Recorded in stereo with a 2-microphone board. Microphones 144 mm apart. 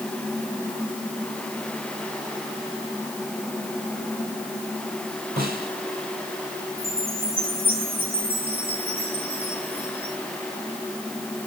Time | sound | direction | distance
5.4 | a snare drum | 80° right | 5.5 m
6.8 | a chime | 75° right (ahead or behind) | 6.5 m